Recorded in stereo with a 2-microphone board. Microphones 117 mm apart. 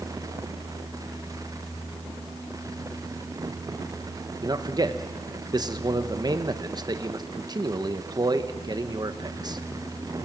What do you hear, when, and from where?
4.4 s a man speaking: 35° right (ahead or behind), 1.2 m